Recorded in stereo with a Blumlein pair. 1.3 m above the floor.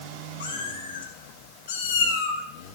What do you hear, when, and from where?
0.4 s a cat meowing: 65° left, 2.5 m; by 2.4 s 40° left, 1.2 m